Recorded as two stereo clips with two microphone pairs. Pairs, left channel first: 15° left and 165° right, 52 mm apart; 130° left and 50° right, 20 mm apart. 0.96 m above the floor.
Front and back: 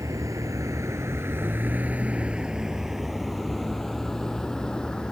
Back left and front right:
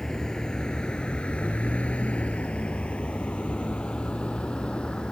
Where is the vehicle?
170° right; by 5.1 s 90° left.